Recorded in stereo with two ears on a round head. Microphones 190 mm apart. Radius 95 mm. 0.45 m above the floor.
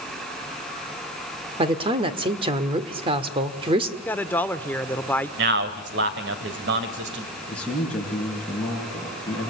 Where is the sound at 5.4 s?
60° right (ahead or behind), 2.5 m.